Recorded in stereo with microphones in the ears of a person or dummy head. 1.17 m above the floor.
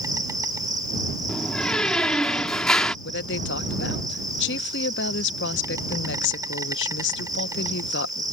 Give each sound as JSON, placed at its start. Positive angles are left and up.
{"t": 0.0, "sound": "an insect", "side_deg": -20}
{"t": 1.3, "sound": "a door slam", "side_deg": 5}
{"t": 3.0, "sound": "a woman speaking", "side_deg": 60}